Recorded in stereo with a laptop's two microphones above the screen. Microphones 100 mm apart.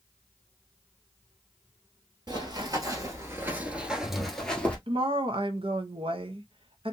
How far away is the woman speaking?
About 0.8 m.